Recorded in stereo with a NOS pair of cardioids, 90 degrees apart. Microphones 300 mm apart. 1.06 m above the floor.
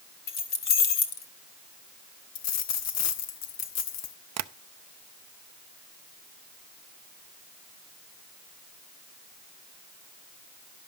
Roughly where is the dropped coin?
Ahead left.